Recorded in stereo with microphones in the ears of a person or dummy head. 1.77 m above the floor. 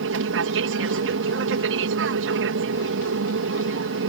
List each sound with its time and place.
0.0 s an aircraft: 65° right (ahead or behind)